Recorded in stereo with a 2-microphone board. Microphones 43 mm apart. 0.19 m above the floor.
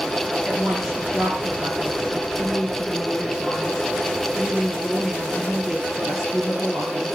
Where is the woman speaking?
10° right (ahead or behind), 3.5 m.